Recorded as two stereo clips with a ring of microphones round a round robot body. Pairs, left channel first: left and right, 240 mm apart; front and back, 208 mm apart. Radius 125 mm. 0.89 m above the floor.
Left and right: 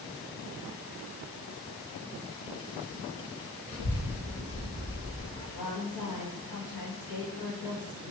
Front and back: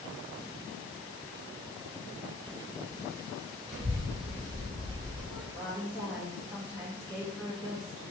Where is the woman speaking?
100° left, 1.0 m.